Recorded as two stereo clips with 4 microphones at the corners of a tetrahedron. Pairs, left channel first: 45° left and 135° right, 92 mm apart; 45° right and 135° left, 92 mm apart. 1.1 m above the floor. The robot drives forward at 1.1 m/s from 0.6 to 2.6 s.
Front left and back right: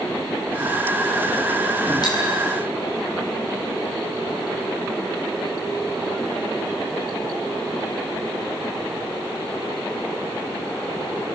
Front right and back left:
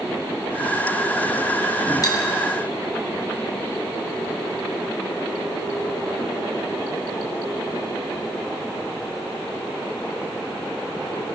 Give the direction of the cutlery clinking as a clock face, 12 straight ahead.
12 o'clock.